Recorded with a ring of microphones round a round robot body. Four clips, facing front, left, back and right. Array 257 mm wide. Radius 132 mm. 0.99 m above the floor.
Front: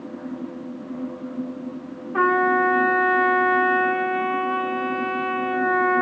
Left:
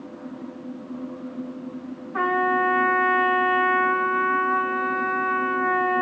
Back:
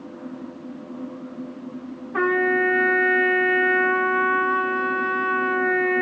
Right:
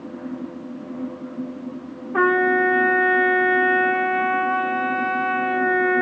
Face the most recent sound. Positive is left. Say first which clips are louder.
# right 4 dB, front 2 dB
turn(degrees=-105)